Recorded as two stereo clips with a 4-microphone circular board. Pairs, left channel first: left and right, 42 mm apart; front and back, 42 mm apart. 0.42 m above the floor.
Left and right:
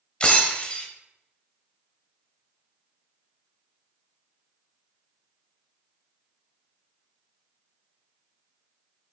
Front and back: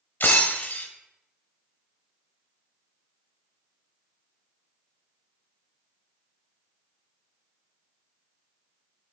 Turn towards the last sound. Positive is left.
turn(degrees=30)